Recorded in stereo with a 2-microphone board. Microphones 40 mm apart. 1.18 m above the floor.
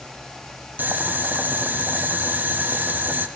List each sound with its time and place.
0.8 s boiling: 45° right (ahead or behind), 1.7 m